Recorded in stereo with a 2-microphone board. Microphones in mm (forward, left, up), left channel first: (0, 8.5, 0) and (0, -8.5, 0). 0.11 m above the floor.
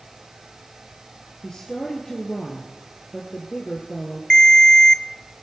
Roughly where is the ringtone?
Left.